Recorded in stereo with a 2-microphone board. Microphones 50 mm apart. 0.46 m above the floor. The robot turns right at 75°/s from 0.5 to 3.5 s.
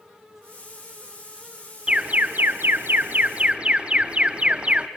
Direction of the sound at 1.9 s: 155° right.